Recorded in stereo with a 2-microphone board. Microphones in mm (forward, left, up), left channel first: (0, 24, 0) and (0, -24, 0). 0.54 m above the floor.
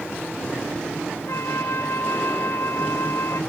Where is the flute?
65° left (ahead or behind).